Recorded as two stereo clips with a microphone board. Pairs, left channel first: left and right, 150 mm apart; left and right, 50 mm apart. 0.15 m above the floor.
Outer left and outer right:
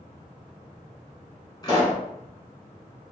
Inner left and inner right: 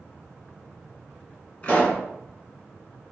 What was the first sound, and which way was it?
A pop, 25° left (ahead or behind).